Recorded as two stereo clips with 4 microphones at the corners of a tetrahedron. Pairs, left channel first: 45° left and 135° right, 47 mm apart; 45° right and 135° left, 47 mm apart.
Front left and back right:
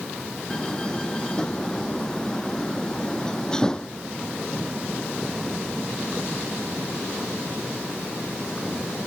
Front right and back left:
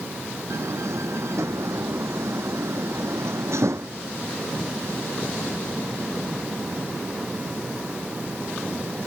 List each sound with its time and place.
0.5 s a door slam: 120° left